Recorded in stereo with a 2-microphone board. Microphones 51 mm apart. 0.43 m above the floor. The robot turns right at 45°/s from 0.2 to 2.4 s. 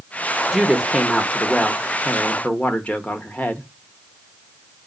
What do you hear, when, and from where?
0.5 s a woman speaking: 25° right, 0.8 m; by 3.7 s 60° left, 0.8 m